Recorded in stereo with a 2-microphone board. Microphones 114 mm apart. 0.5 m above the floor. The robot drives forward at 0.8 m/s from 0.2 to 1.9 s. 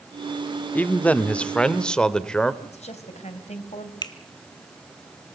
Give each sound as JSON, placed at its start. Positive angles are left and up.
{"t": 0.8, "sound": "a man speaking", "side_deg": 15, "distance_m": 0.7}
{"t": 2.6, "sound": "a woman speaking", "side_deg": 75, "distance_m": 3.0}
{"t": 4.0, "sound": "a finger snap", "side_deg": 40, "distance_m": 1.5}